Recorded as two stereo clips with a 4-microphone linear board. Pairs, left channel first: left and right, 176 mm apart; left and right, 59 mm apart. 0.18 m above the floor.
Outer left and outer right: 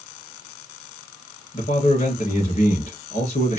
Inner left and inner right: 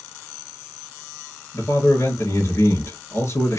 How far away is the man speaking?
About 3.5 m.